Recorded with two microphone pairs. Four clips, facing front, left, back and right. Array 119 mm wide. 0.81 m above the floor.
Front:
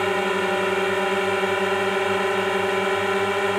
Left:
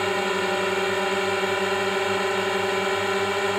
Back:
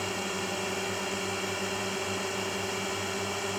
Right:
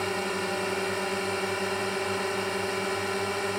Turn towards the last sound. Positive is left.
turn(degrees=30)